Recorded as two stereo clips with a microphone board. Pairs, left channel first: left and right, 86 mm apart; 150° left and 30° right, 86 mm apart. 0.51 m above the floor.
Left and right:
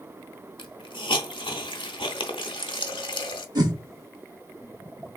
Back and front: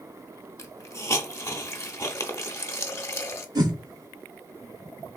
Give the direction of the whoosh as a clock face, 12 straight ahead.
2 o'clock.